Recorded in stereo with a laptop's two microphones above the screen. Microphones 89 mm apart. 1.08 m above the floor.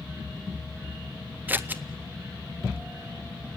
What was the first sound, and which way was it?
Scissors, 20° right (ahead or behind).